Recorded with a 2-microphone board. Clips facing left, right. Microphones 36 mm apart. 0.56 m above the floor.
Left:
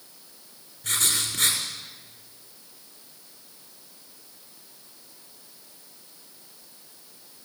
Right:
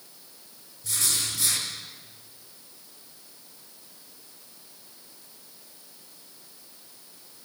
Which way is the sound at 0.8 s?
60° left (ahead or behind).